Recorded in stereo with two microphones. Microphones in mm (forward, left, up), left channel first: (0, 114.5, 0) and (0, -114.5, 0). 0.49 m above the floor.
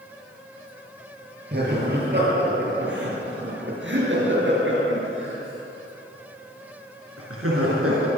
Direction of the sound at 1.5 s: 45° right (ahead or behind).